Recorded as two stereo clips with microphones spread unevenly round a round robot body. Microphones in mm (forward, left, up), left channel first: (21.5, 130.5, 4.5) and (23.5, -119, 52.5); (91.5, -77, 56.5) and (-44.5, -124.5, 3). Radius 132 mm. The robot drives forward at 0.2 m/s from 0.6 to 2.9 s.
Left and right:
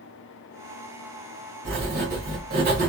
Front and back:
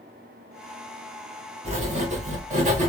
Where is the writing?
145° right, 1.0 m; by 2.9 s 150° right, 1.2 m.